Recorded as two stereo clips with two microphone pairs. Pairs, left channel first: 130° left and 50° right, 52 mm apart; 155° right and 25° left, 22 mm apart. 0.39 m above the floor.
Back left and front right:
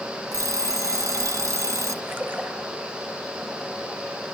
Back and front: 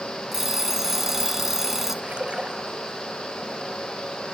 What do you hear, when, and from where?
0.3 s an alarm clock: 45° right, 2.0 m
2.0 s a splash: 10° left, 3.5 m